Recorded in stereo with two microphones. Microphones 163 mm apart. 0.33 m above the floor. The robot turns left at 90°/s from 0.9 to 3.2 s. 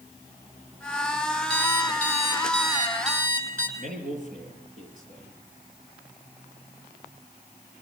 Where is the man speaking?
55° right (ahead or behind), 8 m.